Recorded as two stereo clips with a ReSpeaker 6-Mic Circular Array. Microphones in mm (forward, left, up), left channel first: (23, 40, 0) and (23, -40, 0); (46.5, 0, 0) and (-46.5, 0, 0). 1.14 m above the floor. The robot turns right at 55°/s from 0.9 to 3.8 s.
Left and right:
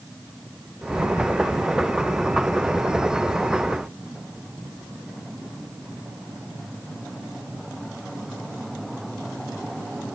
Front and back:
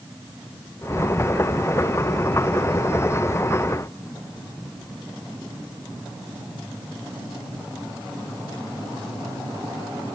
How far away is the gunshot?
No gunshot in this recording.